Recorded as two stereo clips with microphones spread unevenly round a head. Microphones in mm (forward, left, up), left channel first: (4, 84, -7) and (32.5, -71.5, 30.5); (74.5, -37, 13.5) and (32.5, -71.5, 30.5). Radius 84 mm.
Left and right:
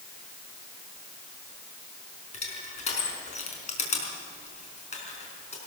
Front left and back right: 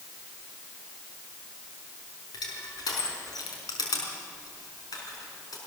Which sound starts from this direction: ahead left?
Crushing, at 2.3 s.